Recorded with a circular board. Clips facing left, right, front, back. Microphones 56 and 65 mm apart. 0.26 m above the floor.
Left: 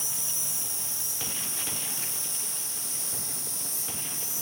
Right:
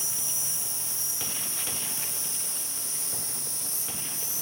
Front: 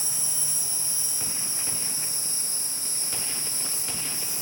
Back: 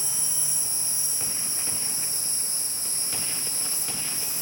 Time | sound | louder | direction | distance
0.0 | an insect | right 1 dB, even | 15° left | 2.5 m